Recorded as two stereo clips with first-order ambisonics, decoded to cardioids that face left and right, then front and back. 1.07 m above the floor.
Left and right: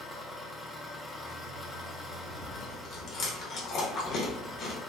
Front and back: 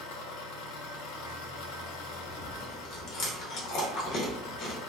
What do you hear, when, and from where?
0.0 s an engine running: 10° left, 0.7 m
2.3 s chewing: 40° left, 1.0 m